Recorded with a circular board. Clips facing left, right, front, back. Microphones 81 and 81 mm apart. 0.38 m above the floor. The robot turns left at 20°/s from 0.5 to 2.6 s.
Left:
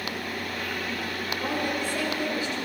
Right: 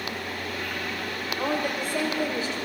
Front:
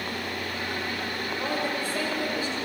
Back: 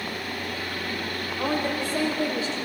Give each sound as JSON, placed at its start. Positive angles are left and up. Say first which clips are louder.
{"t": 1.4, "sound": "a woman speaking", "louder": "right 2 dB, back 4 dB", "azimuth_deg": -115, "distance_m": 1.4}